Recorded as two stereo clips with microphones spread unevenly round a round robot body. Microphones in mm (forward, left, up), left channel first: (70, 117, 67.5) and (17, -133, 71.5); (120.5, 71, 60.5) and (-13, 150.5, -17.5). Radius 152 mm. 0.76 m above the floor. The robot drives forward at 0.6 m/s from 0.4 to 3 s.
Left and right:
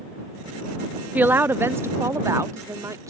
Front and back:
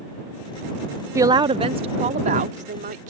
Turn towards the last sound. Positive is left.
turn(degrees=180)